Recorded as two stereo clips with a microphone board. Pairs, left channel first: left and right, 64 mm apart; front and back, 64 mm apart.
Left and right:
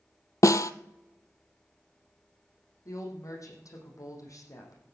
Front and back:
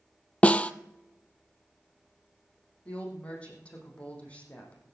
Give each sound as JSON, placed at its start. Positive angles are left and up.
{"t": 0.4, "sound": "a snare drum", "azimuth_deg": 70, "distance_m": 0.6}
{"t": 2.9, "sound": "a woman speaking", "azimuth_deg": 70, "distance_m": 5.5}